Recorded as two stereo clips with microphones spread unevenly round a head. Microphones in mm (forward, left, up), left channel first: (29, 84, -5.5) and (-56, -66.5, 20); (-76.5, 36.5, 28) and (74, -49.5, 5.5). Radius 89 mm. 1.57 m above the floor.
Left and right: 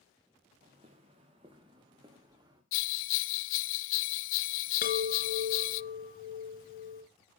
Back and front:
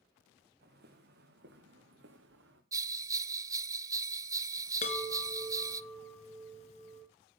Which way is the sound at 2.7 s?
45° left.